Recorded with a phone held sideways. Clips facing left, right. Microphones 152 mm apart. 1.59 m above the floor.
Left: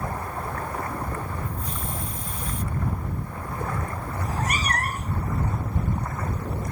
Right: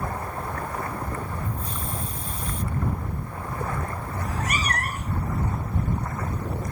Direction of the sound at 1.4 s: 35° right (ahead or behind).